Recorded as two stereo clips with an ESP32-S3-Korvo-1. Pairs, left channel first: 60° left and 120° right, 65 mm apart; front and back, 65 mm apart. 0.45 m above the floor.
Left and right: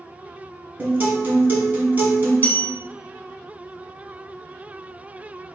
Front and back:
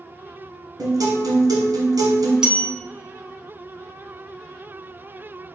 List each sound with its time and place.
0.8 s a guitar: 175° left, 1.4 m
2.4 s a bell: 105° left, 0.9 m